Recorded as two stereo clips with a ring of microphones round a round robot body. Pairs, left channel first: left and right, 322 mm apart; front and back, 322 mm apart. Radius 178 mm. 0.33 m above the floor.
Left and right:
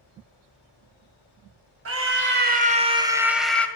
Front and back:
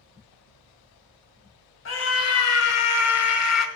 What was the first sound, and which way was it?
A scream, 50° right.